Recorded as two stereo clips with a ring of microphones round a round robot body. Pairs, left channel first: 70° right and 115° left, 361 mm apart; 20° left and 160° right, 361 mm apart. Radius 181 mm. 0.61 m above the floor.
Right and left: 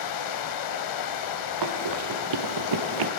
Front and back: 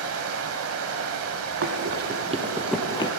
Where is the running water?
105° right, 0.9 m.